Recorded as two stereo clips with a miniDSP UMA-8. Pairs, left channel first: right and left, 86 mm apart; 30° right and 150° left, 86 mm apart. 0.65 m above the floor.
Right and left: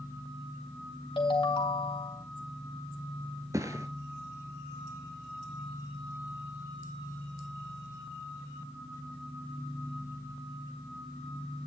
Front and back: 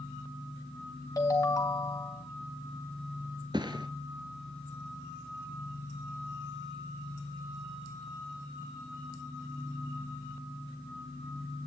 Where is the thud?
135° left, 1.1 m.